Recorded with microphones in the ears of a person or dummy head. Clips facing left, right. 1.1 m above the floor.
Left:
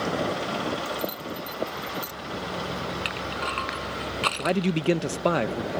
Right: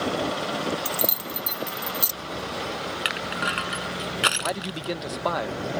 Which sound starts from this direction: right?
Keys jangling, at 0.8 s.